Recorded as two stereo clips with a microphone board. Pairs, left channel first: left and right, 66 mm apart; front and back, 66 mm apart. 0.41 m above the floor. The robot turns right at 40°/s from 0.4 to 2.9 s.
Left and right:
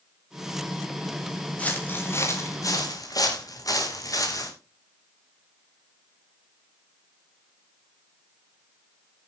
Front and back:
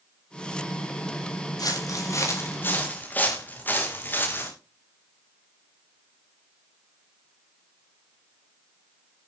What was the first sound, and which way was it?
Footsteps, 20° left.